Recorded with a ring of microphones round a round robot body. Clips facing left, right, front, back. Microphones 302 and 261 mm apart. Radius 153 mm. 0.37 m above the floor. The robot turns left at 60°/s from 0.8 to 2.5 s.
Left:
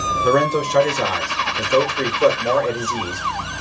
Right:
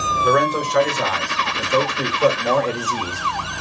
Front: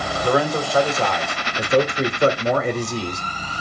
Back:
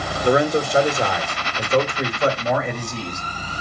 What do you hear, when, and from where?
0.2 s a man speaking: 120° left, 1.1 m; by 3.2 s 20° left, 1.1 m